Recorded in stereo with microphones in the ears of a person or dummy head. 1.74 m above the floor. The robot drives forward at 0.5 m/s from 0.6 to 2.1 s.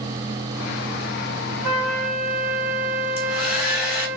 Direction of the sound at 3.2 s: 60° left (ahead or behind).